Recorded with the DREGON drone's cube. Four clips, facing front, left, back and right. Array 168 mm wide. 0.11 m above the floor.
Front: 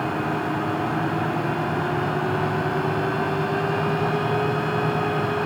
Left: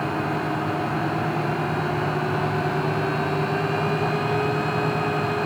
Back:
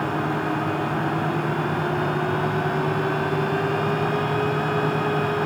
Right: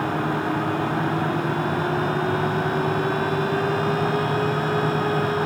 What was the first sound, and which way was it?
Only background noise.